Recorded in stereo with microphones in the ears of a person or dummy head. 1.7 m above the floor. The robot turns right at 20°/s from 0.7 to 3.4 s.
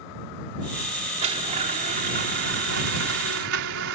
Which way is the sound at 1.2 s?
150° right.